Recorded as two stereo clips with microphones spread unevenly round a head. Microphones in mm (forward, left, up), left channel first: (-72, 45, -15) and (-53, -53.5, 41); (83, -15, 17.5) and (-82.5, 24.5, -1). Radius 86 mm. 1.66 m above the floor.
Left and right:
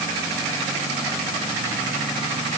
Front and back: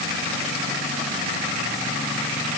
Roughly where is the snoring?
No snoring in this recording.